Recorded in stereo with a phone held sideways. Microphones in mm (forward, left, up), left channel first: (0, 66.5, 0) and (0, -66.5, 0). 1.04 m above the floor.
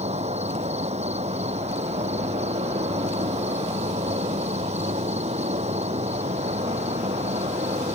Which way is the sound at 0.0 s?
55° right (ahead or behind).